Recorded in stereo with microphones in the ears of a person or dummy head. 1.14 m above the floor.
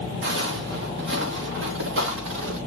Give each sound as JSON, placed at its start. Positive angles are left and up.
{"t": 0.2, "sound": "footsteps", "side_deg": -65, "distance_m": 3.5}